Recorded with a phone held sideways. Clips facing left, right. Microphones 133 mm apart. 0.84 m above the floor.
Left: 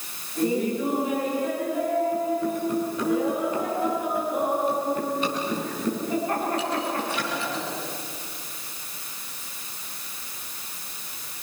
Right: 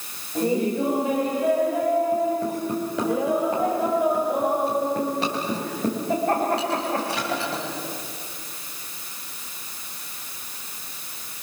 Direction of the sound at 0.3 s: 80° right.